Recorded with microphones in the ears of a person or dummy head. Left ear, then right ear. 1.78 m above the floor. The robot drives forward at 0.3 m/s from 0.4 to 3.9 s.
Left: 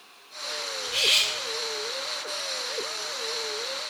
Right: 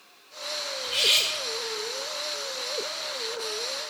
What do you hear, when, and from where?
0.8 s cutlery clinking: 10° right (ahead or behind), 1.3 m